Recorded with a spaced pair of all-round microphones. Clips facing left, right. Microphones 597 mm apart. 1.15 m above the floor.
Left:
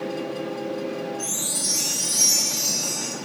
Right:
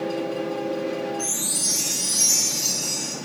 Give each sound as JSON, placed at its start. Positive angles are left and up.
{"t": 1.2, "sound": "a chime", "side_deg": -20, "distance_m": 9.0}